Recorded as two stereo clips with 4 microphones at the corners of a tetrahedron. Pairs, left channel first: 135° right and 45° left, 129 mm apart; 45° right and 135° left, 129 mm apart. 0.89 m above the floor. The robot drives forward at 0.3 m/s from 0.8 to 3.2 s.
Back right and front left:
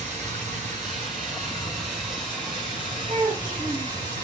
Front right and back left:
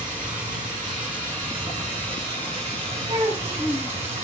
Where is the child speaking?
85° left, 1.8 m.